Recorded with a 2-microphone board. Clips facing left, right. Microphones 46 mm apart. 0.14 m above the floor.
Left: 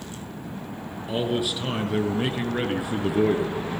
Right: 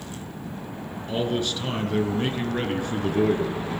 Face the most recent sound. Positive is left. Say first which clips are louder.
# even
turn(degrees=10)  # may be behind; listen again after turning